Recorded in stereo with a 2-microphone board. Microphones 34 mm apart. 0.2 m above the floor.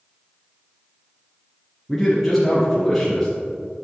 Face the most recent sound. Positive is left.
turn(degrees=0)  # may be behind; listen again after turning